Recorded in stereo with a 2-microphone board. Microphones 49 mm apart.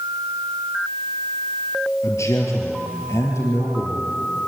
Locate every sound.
2.0 s a man speaking: 80° left, 4.5 m; by 4.2 s 70° left (ahead or behind), 6 m